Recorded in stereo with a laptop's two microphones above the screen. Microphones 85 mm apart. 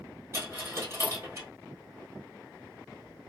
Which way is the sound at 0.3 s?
30° right (ahead or behind).